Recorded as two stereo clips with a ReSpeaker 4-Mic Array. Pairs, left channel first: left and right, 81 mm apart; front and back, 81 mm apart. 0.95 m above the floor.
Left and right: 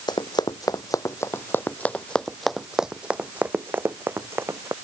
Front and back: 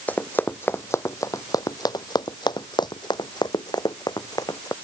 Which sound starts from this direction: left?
Running footsteps, at 0.1 s.